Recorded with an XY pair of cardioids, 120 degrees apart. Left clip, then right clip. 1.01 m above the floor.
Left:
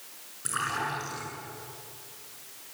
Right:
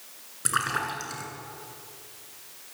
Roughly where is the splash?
Ahead right.